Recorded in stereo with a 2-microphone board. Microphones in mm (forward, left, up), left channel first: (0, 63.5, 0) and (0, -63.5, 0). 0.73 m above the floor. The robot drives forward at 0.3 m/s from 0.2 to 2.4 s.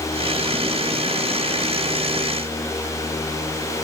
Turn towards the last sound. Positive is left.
No sound to turn to.